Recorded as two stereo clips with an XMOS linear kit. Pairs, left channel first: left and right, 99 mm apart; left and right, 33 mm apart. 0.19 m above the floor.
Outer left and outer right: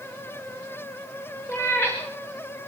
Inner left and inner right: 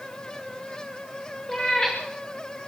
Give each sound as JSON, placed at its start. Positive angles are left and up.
{"t": 1.5, "sound": "a cat meowing", "side_deg": 20, "distance_m": 6.5}